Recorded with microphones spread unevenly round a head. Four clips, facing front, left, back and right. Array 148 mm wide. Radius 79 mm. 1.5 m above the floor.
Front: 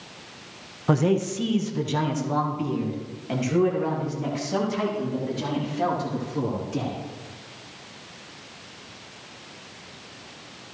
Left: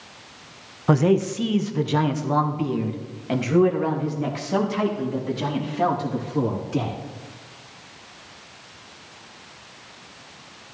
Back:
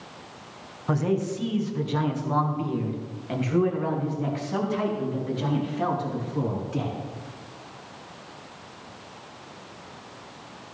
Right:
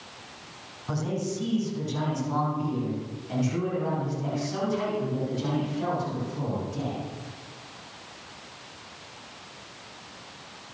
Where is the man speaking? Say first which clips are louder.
Left 11 dB, front 3 dB; 60° left, 0.9 m; by 7.0 s 80° left, 4 m.